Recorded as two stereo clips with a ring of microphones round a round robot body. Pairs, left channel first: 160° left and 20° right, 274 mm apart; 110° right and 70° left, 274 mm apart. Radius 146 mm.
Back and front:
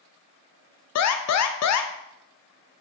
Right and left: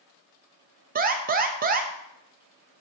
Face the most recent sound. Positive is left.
turn(degrees=125)